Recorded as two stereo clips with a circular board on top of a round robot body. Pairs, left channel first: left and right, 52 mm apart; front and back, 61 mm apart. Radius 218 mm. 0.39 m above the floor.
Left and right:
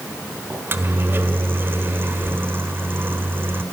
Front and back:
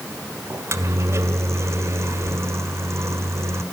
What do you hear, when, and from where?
0.5 s a microwave: 135° right, 1.8 m